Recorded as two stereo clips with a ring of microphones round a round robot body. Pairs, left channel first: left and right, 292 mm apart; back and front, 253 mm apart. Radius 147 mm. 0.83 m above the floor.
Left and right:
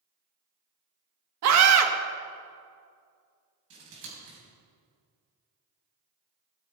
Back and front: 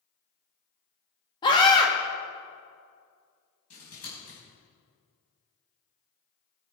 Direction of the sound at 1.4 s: 110° right.